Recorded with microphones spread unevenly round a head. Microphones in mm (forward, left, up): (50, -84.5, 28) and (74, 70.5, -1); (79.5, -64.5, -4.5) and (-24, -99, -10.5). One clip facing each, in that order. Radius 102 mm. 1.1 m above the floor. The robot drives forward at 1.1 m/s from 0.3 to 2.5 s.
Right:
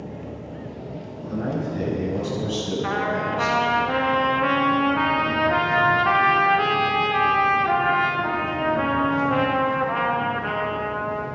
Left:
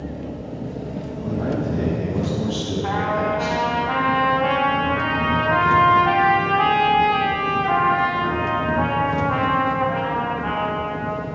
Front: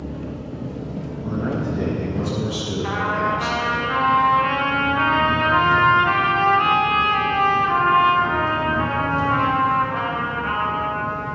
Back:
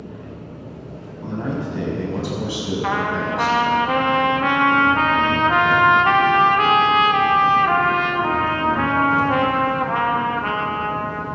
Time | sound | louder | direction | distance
0.0 | an engine running | left 4 dB, front 5 dB | 35° left | 1.9 m
1.2 | a man speaking | left 3 dB, front 1 dB | 160° right | 6.5 m
2.8 | a trumpet | left 3 dB, even | 155° right | 1.5 m